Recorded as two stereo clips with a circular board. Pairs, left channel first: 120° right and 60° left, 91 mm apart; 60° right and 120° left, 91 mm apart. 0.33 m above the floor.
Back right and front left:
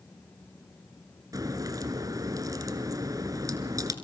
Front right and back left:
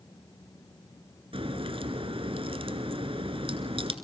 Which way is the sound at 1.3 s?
110° left.